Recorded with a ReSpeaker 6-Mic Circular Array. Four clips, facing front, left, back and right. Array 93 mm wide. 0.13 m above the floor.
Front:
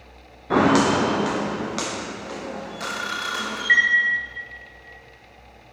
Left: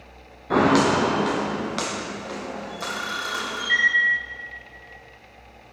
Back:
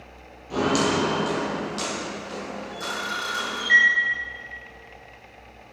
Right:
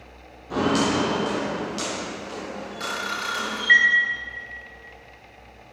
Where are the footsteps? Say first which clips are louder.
Left 4 dB, front 5 dB; 35° left, 0.9 m; by 3.6 s 60° left, 4 m.